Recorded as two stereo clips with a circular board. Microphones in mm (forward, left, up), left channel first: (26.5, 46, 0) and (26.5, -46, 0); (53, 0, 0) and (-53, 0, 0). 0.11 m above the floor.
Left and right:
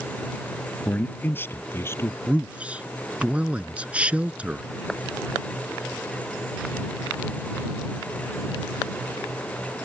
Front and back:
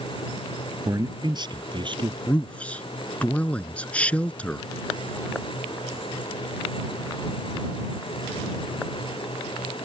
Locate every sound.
0.8 s a man speaking: 155° left; by 2.2 s 150° left
2.3 s a man speaking: 50° right